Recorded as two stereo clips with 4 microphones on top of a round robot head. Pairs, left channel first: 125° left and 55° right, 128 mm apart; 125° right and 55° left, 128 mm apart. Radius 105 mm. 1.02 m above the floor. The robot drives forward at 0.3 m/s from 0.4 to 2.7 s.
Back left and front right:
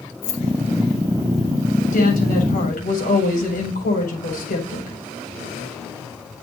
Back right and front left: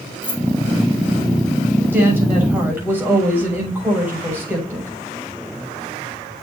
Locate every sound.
0.2 s keys jangling: 155° left, 1.7 m
1.9 s a woman speaking: 130° left, 7 m